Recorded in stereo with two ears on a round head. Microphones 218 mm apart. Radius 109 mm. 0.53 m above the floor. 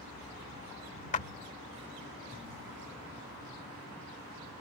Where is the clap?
30° left (ahead or behind).